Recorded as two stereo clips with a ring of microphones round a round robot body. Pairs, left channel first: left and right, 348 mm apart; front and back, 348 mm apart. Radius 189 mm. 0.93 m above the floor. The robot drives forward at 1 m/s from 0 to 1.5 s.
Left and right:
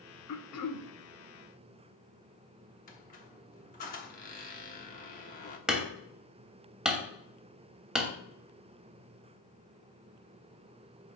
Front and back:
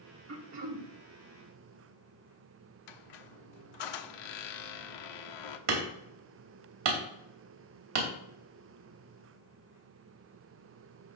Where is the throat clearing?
125° left, 1.2 m; by 0.9 s 140° left, 1.6 m.